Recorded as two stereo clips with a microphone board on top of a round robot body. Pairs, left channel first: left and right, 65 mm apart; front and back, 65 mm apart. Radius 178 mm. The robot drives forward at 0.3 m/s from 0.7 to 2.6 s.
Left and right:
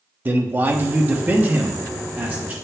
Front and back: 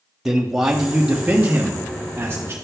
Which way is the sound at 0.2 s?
105° right.